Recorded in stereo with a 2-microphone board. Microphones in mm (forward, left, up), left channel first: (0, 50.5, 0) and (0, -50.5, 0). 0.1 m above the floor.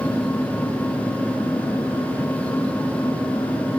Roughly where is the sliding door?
No sliding door in this recording.